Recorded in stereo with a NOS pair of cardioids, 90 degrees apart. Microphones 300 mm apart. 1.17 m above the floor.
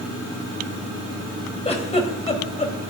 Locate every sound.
1.6 s a giggle: 20° left, 3.5 m